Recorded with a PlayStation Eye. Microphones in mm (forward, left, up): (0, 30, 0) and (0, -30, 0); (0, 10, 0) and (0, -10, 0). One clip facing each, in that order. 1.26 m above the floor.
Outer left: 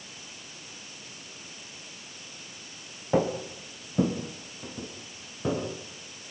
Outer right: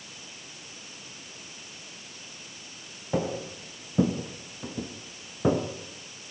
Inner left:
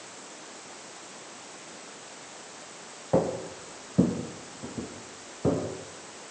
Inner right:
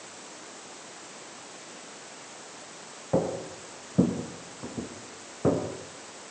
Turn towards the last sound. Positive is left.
turn(degrees=-30)  # may be behind; listen again after turning